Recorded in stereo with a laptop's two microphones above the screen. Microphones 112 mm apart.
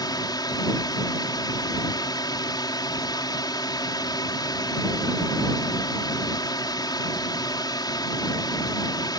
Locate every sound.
0.0 s a drone: 40° left (ahead or behind)